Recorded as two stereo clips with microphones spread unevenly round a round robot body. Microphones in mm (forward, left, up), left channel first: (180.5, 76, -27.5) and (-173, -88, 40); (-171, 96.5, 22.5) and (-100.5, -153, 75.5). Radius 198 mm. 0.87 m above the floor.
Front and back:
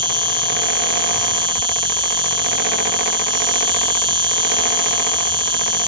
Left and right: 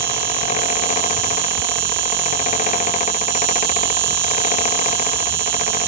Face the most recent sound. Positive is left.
turn(degrees=-75)